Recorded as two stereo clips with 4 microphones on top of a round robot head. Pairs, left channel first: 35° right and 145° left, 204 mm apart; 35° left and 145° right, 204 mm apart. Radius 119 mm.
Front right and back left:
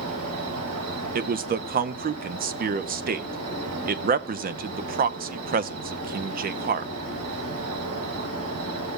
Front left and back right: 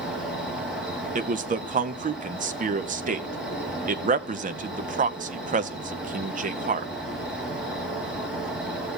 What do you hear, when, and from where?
0.0 s an insect: 130° left, 2 m
1.1 s a man speaking: 175° left, 0.7 m